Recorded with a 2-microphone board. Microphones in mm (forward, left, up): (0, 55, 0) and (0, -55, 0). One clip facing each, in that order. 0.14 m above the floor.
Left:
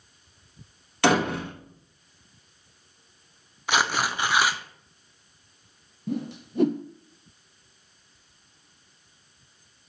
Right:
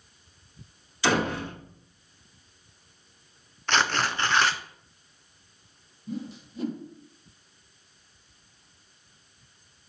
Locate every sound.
1.0 s a door slam: 65° left (ahead or behind), 3 m
3.7 s tearing paper: 10° left (ahead or behind), 0.5 m
6.1 s a whoosh: 65° left (ahead or behind), 0.7 m